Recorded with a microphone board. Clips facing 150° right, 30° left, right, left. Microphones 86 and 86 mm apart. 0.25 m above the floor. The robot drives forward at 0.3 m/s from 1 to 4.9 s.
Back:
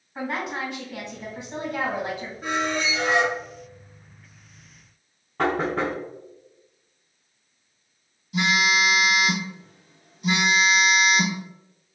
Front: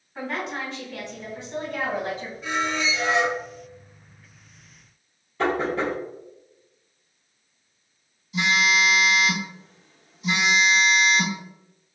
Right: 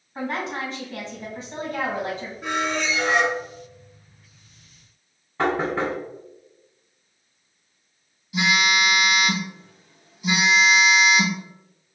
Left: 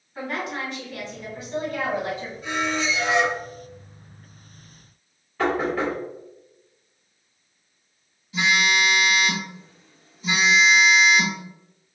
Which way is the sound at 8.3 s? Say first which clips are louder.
Even, even; 165° right.